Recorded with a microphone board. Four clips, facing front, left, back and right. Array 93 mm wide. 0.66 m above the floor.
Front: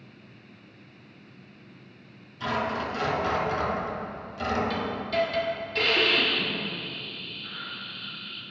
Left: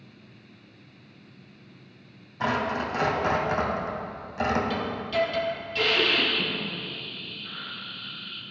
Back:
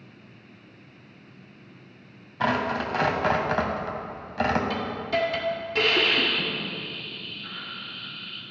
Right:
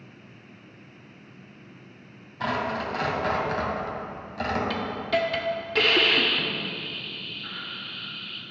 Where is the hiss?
100° right, 2.0 m.